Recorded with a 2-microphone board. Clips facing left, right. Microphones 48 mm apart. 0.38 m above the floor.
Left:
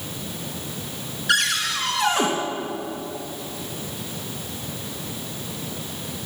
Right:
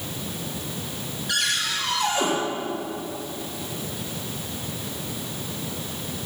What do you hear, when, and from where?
1.3 s a cupboard door: 80° left, 3.5 m